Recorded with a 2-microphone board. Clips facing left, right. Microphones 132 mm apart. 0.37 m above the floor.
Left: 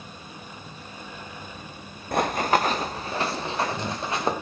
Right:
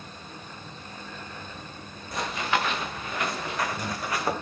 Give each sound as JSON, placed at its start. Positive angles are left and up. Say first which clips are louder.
{"t": 0.0, "sound": "an insect", "louder": "left 1 dB", "side_deg": 10, "distance_m": 3.5}
{"t": 2.1, "sound": "running footsteps", "louder": "left 6 dB", "side_deg": 55, "distance_m": 1.3}